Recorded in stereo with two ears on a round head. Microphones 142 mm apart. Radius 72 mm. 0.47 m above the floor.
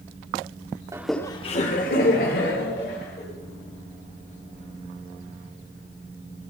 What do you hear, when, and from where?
0.9 s laughter: 20° right (ahead or behind), 0.8 m; by 3.2 s 70° left (ahead or behind), 3.5 m